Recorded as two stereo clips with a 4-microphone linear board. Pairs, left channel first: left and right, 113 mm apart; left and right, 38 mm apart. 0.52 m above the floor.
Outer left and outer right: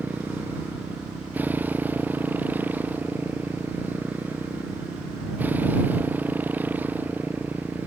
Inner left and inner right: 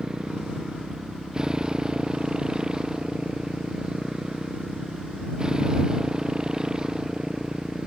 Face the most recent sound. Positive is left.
turn(degrees=-15)  # may be behind; listen again after turning